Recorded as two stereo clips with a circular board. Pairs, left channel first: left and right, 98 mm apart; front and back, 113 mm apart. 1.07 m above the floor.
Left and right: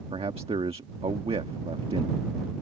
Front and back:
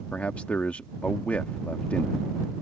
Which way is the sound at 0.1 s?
75° right.